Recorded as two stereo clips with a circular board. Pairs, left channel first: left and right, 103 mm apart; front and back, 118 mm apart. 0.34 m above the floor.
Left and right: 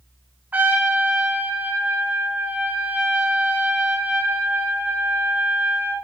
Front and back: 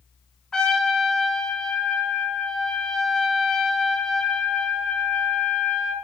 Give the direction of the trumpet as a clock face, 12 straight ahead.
2 o'clock.